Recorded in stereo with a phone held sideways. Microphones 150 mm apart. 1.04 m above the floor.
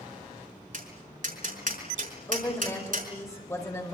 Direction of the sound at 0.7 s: 65° right (ahead or behind).